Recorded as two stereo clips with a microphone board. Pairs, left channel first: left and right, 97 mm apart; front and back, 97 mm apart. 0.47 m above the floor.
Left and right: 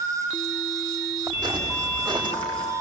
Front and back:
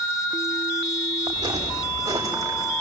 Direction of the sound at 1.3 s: 130° right.